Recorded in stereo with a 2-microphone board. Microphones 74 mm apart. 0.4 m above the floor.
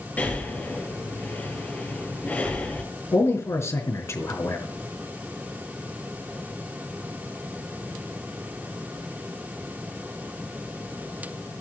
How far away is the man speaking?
About 4.5 m.